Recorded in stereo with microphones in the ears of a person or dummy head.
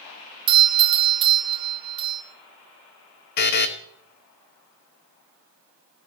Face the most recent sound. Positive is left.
turn(degrees=55)  # may be behind; listen again after turning